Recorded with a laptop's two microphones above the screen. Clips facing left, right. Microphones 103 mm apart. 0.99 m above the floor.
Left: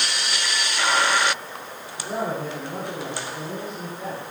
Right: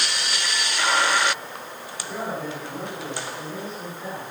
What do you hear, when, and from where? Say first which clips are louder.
2.0 s a man speaking: left 3 dB; 50° left (ahead or behind), 7.5 m